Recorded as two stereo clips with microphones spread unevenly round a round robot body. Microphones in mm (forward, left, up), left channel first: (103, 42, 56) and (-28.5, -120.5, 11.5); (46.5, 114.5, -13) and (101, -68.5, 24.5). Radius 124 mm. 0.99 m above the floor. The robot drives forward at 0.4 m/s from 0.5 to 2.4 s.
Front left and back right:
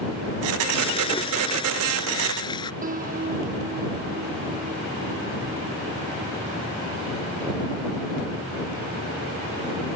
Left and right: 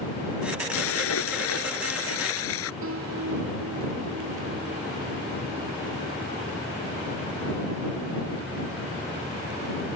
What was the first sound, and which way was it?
A splash, 120° left.